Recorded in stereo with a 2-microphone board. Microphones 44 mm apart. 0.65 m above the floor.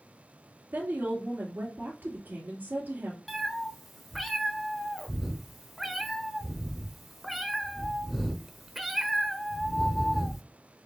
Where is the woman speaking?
50° right (ahead or behind), 1.8 m.